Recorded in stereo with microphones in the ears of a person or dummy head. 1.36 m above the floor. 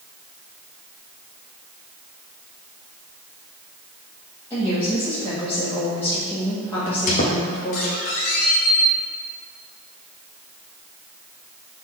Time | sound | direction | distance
4.5 | a woman speaking | 10° left (ahead or behind) | 1.8 m
6.9 | a squeak | 35° left (ahead or behind) | 0.9 m